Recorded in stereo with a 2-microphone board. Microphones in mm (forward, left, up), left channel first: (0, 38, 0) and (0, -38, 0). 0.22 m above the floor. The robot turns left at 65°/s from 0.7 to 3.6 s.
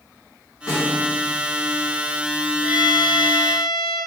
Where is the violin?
10° right, 1.3 m; by 4.0 s 75° right, 1.3 m.